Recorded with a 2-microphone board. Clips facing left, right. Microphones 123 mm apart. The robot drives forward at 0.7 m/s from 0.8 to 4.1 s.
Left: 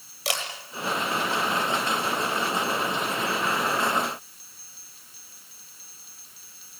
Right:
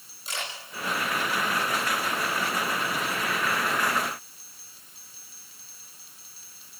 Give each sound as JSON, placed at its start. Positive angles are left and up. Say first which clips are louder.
{"t": 0.2, "sound": "a camera shutter", "louder": "left 6 dB", "side_deg": 90, "distance_m": 9.5}